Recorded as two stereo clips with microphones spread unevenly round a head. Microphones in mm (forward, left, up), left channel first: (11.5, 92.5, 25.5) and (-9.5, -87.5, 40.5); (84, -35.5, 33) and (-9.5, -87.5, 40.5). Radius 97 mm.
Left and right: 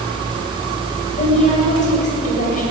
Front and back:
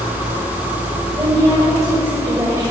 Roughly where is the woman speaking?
Behind left.